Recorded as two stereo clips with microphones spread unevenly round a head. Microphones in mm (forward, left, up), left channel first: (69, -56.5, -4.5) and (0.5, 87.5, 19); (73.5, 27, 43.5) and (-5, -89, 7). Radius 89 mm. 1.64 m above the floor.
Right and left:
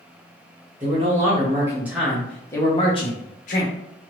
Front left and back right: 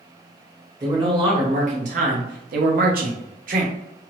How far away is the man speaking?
About 1.3 m.